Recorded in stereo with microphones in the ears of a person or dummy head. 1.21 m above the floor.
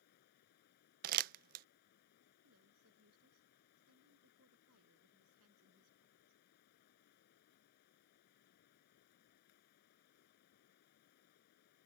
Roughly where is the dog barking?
No dog barking in this recording.